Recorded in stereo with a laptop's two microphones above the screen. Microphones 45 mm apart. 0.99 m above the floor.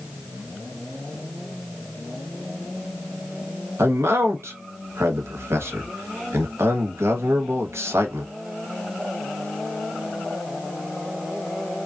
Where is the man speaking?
75° right (ahead or behind), 0.9 m.